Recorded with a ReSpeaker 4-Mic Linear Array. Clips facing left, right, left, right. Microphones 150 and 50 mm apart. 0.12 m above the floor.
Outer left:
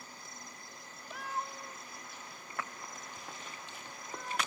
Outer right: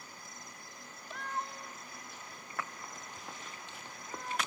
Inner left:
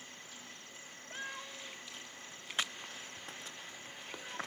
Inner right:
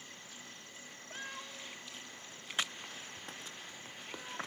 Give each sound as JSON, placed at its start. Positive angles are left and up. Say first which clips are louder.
{"t": 1.1, "sound": "a cat meowing", "louder": "even, inner left 2 dB", "side_deg": 5, "distance_m": 0.5}